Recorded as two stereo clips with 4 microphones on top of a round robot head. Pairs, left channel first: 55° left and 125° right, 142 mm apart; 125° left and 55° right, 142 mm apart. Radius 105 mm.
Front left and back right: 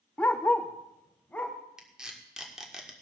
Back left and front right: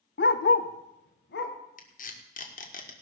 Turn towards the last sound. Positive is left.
turn(degrees=145)